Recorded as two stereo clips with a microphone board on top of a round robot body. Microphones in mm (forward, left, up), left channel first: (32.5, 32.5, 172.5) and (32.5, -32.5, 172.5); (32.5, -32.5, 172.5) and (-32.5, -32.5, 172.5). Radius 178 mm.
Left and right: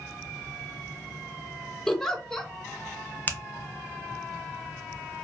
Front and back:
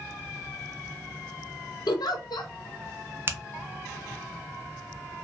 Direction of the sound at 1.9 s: 5° left.